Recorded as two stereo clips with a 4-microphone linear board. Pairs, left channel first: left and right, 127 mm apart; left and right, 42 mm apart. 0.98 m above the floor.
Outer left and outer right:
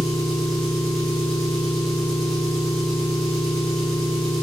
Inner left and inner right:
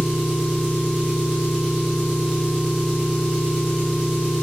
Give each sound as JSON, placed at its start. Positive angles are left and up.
{"t": 0.0, "sound": "an engine running", "side_deg": 0, "distance_m": 1.4}